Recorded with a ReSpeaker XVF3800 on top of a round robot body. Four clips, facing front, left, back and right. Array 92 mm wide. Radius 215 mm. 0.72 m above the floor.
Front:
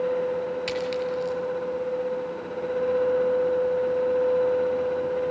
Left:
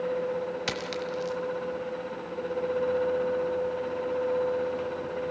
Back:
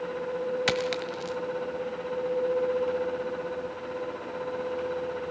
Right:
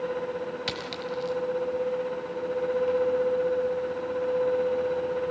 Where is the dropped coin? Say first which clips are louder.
Left 1 dB, front 2 dB; 170° left, 1.1 m.